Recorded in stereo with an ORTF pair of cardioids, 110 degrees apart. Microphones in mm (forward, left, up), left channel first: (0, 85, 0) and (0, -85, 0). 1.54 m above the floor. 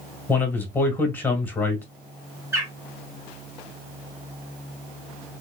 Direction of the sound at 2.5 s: 15° right.